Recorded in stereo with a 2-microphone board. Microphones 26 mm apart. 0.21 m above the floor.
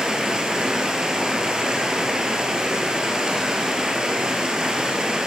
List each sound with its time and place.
0.0 s running water: 30° right (ahead or behind), 2 m